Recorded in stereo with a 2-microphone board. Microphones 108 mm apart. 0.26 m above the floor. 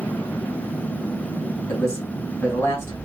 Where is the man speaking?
25° left (ahead or behind), 1.5 m.